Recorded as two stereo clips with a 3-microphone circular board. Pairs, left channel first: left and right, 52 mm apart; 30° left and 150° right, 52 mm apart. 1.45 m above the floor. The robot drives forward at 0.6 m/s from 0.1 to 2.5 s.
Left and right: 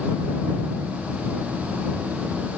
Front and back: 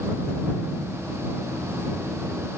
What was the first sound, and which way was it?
Only background noise.